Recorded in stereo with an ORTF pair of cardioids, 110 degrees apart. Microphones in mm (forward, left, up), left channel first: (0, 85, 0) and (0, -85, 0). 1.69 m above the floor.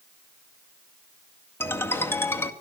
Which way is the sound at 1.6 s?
15° left.